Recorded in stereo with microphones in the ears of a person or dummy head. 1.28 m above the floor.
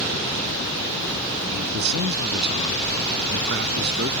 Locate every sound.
1.4 s a man speaking: 55° right (ahead or behind)